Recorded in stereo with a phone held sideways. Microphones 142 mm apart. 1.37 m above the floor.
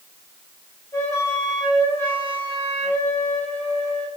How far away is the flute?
About 3.5 m.